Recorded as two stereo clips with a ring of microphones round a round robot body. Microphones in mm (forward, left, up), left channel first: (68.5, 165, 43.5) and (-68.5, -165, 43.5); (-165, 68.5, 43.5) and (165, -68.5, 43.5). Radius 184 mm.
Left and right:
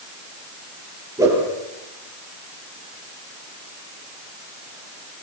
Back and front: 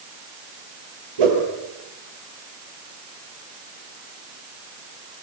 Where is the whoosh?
30° right, 8.5 m.